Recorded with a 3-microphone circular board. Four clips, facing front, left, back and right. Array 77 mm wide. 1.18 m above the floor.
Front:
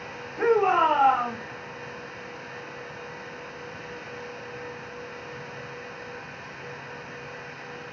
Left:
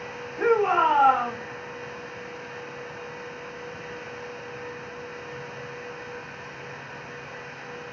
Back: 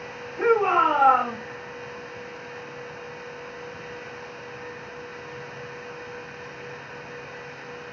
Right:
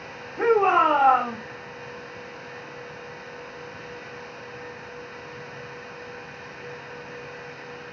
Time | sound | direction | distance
0.4 | a shout | 70° right | 1.1 m